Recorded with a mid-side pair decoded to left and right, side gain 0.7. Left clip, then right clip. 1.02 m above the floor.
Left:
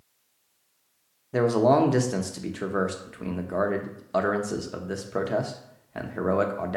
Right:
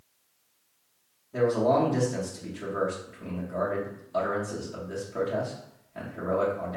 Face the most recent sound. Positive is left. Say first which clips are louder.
# left 3 dB
turn(degrees=45)